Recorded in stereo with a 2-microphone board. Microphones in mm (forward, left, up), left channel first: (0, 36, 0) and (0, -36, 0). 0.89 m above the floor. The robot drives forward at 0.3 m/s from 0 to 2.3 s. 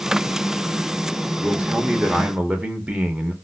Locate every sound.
1.4 s a man speaking: 15° right (ahead or behind), 0.6 m